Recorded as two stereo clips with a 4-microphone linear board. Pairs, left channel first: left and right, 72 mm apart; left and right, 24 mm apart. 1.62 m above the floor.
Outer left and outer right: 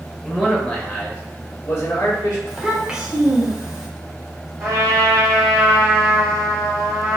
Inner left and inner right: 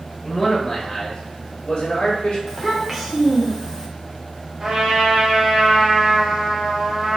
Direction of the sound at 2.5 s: 10° right (ahead or behind).